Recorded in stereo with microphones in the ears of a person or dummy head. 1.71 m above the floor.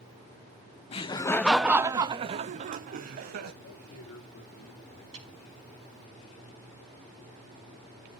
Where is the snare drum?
35° right (ahead or behind), 4.5 m.